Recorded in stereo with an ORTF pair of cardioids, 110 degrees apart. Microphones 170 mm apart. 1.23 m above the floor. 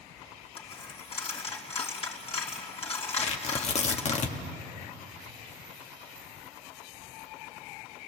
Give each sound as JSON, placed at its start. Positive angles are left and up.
{"t": 0.6, "sound": "a dropped coin", "azimuth_deg": 35, "distance_m": 3.5}
{"t": 3.2, "sound": "tearing paper", "azimuth_deg": 40, "distance_m": 1.9}